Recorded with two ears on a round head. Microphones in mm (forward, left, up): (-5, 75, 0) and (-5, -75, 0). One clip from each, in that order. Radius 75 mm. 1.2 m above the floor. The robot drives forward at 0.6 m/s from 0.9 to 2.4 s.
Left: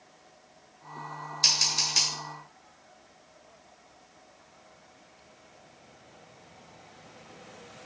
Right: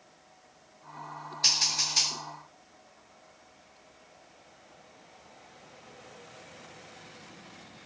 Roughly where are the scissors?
Left.